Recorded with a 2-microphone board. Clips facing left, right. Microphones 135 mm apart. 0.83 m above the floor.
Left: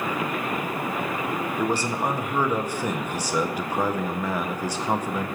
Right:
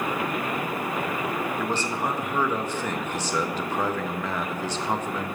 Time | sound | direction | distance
1.6 | a man speaking | 10° left (ahead or behind) | 0.5 m